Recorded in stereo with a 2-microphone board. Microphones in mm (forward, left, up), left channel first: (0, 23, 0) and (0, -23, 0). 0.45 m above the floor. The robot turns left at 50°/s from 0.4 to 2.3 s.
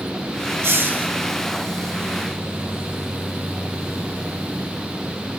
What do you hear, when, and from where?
0.6 s a hiss: 60° right (ahead or behind), 1.8 m; by 1.1 s 35° right (ahead or behind), 1.8 m